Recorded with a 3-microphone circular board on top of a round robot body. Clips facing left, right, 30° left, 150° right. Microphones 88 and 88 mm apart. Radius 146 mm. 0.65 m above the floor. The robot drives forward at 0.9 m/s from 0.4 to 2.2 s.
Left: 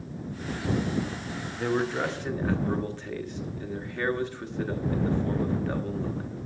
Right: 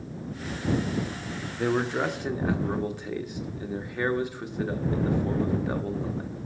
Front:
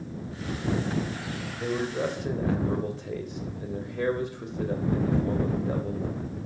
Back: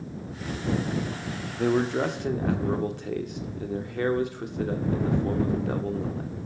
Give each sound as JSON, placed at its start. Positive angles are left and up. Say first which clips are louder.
{"t": 1.5, "sound": "a man speaking", "louder": "right 1 dB, back 6 dB", "azimuth_deg": -160, "distance_m": 1.1}